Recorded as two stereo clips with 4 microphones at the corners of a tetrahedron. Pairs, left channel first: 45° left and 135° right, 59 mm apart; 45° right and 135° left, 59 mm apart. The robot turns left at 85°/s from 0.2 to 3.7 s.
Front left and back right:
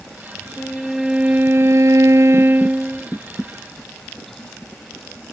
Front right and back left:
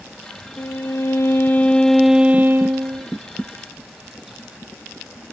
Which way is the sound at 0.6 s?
15° right.